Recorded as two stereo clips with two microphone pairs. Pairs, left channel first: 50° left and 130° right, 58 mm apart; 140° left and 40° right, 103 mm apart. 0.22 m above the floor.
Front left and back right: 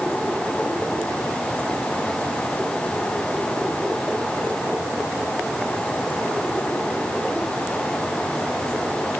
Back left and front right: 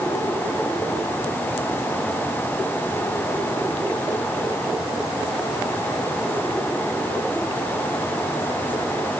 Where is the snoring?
No snoring in this recording.